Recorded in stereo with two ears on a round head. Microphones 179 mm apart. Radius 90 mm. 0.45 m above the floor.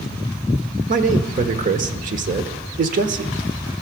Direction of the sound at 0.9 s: 40° right (ahead or behind).